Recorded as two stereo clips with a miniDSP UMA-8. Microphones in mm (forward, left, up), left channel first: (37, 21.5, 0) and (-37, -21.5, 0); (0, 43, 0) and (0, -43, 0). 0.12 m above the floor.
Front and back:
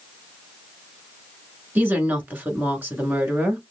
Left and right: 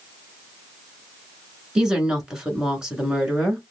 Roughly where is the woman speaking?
Behind right.